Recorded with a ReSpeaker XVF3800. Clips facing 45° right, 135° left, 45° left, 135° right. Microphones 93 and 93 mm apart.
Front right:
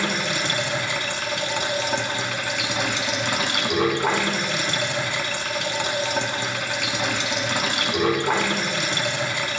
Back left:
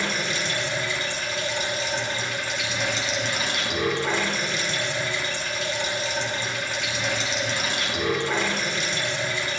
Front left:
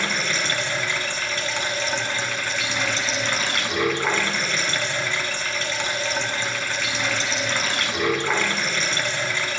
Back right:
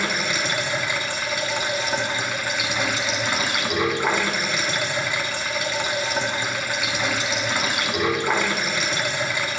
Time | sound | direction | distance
0.0 | running water | 55° right | 1.7 m